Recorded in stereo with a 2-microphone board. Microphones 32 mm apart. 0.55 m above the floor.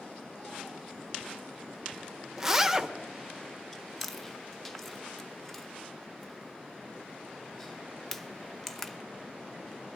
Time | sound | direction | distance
2.4 | a zipper | 10° right (ahead or behind) | 0.7 m
3.7 | chewing | 10° left (ahead or behind) | 0.8 m